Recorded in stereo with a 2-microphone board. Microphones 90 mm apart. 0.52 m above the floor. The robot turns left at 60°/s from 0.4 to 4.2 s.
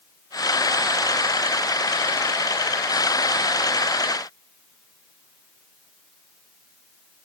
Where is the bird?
I don't hear a bird.